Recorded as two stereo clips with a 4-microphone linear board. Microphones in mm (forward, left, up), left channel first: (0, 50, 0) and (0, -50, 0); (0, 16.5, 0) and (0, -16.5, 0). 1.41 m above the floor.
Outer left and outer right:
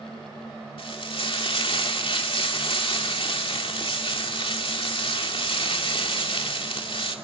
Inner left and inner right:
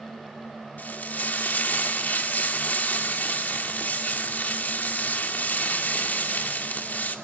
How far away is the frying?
About 2.5 m.